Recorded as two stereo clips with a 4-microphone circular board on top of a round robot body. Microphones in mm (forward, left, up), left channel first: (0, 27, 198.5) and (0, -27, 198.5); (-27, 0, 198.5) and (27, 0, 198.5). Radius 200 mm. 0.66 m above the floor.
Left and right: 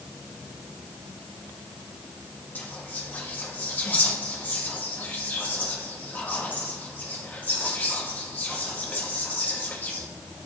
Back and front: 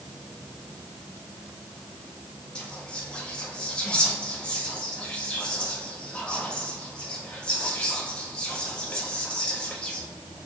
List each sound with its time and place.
2.5 s whispering: 120° left, 1.2 m